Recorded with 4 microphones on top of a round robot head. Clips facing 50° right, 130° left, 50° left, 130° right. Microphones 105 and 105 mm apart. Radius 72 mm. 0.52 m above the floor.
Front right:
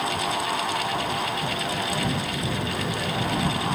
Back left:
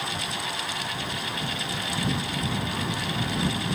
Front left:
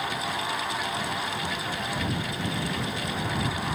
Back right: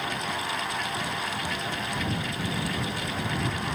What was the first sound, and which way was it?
Only background noise.